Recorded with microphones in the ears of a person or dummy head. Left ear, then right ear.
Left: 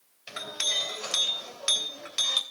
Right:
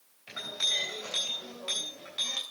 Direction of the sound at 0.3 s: 45° left (ahead or behind).